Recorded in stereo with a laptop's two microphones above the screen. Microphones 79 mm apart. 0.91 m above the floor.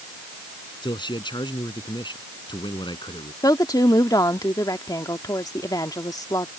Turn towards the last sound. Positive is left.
turn(degrees=55)  # may be behind; listen again after turning